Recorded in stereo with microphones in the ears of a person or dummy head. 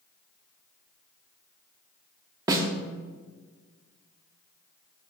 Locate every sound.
2.5 s a snare drum: 15° right (ahead or behind), 0.7 m